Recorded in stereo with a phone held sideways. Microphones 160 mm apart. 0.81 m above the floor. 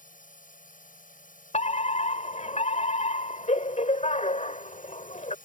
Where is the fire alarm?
45° left (ahead or behind).